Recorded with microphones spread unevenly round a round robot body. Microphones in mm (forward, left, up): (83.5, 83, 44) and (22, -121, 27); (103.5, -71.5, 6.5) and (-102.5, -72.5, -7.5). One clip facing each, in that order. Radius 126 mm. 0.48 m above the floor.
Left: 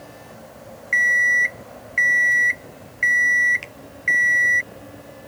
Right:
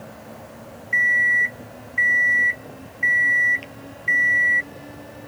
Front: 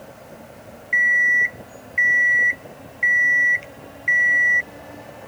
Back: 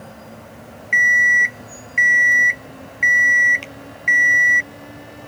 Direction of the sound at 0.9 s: 140° left.